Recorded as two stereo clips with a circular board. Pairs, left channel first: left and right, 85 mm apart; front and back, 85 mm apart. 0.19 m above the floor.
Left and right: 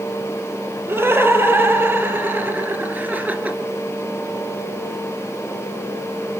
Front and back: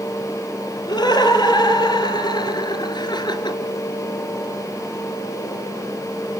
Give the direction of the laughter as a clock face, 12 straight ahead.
1 o'clock.